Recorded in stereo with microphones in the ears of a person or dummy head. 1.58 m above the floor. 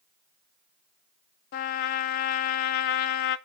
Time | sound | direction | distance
1.5 | a trumpet | 50° left (ahead or behind) | 0.5 m